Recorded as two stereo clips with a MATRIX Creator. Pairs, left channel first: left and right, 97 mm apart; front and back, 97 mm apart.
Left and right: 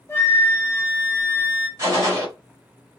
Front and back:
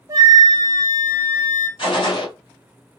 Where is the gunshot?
35° right, 1.8 m.